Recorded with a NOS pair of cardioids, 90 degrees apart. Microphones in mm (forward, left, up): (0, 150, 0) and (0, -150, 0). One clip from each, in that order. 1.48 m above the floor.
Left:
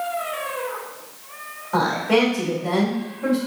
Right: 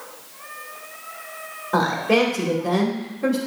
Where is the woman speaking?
25° right, 1.9 m.